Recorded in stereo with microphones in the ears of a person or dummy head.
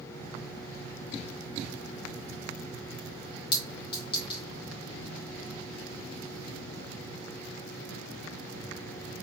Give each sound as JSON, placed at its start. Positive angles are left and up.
{"t": 3.5, "sound": "a clink", "side_deg": 30, "distance_m": 1.1}